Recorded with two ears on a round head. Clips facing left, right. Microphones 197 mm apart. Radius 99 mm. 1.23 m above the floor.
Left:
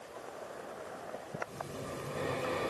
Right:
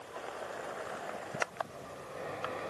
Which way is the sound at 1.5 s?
50° left (ahead or behind).